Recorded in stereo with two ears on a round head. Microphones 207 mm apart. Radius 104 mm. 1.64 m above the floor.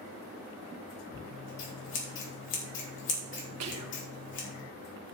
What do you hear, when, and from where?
1.2 s scissors: 55° left (ahead or behind), 4 m
3.6 s whispering: 80° right, 1.6 m